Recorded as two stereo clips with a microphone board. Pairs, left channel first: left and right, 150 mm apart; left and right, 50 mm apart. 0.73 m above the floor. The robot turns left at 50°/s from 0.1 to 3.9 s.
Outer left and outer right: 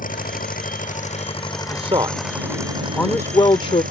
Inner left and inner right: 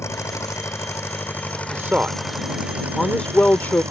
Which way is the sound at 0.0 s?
105° left.